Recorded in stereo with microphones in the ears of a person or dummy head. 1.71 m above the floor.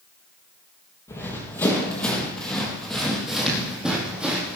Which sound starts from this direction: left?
Running footsteps, at 1.1 s.